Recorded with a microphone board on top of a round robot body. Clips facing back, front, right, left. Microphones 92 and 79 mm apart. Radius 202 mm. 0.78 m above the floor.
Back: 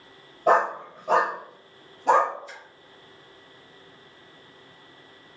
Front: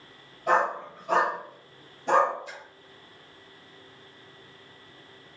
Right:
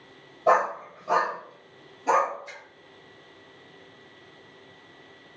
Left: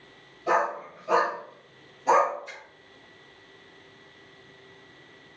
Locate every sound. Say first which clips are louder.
0.5 s a dog barking: back 4 dB, right 3 dB; 140° right, 1.2 m; by 2.3 s 175° left, 2.5 m
2.5 s a splash: front 1 dB, even; 5° right, 1.5 m